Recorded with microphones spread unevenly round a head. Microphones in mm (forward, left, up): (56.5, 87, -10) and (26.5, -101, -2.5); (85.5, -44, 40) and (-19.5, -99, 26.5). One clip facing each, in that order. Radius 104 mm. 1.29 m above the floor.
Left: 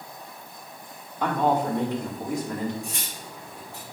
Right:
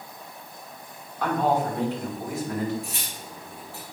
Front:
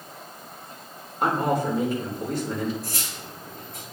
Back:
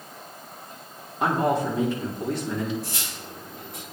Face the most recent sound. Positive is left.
turn(degrees=155)